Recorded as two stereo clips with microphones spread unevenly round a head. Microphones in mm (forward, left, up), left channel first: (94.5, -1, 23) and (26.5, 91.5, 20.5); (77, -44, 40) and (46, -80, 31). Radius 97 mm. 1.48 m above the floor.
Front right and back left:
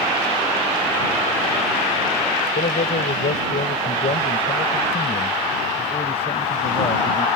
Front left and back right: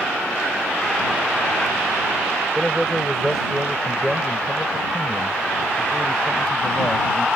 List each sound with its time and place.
2.5 s a man speaking: 45° right; by 7.3 s 15° right